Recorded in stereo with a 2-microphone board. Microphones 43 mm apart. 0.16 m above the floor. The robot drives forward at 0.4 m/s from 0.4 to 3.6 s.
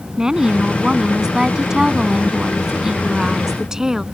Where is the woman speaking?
15° right (ahead or behind).